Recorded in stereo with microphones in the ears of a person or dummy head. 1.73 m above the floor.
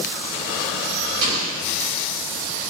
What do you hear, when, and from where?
1.2 s an explosion: 50° right (ahead or behind), 0.7 m